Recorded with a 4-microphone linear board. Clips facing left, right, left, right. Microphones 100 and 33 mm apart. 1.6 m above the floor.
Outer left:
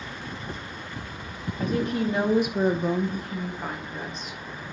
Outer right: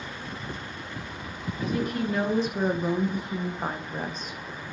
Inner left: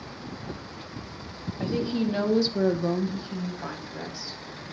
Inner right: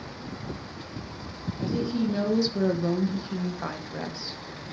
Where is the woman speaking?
35° left (ahead or behind), 2 m; by 4.4 s 50° right (ahead or behind), 2.5 m.